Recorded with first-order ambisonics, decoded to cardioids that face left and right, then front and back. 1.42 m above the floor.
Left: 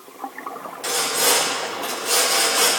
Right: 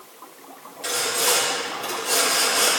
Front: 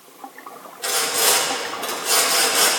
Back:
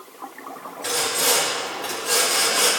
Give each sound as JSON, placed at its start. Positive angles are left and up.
{"t": 0.8, "sound": "sawing", "azimuth_deg": 10, "distance_m": 4.0}